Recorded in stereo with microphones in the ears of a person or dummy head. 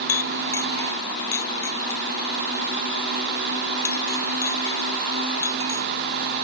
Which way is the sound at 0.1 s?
15° left (ahead or behind).